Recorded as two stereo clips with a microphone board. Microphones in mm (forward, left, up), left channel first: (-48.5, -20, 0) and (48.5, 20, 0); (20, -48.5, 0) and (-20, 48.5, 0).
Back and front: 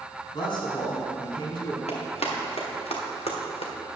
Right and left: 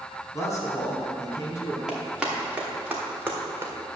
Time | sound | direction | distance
0.3 | a man speaking | 120° right | 3 m
1.9 | running footsteps | 160° right | 3 m